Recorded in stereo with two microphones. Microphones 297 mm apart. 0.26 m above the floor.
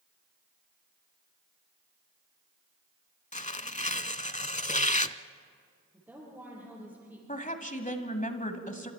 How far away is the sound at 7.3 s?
About 1.5 m.